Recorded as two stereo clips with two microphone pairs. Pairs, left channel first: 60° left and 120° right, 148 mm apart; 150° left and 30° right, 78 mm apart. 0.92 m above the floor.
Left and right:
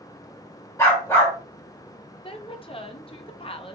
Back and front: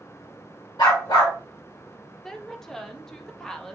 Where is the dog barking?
130° left, 1.6 m.